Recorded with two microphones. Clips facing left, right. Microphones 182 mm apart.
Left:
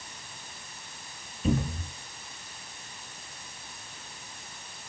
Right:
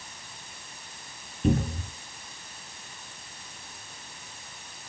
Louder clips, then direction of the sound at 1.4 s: Right 3 dB; 60° right (ahead or behind).